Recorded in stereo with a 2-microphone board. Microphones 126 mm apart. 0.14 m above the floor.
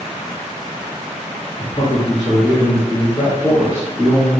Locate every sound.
1.6 s a man speaking: 35° left (ahead or behind), 1.8 m